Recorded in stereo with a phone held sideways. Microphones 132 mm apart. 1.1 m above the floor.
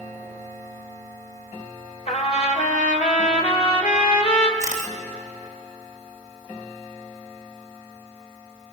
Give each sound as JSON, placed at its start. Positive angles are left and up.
{"t": 2.1, "sound": "a trumpet", "side_deg": 60, "distance_m": 2.5}
{"t": 4.6, "sound": "a camera shutter", "side_deg": 75, "distance_m": 3.0}